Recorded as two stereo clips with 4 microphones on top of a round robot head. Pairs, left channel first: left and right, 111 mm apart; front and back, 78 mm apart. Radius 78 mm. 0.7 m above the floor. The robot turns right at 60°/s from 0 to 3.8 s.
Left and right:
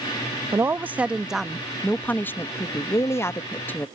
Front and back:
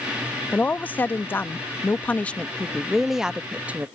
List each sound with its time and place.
0.5 s a woman speaking: 55° right; by 3.9 s 140° left